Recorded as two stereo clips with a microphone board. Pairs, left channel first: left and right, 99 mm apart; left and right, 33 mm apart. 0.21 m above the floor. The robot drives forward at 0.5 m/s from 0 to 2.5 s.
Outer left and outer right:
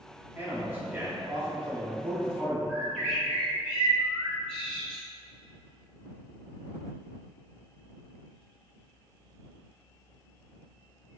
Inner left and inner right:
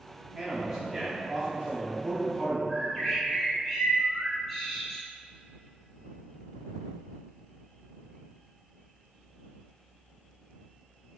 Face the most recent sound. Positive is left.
turn(degrees=10)  # may be behind; listen again after turning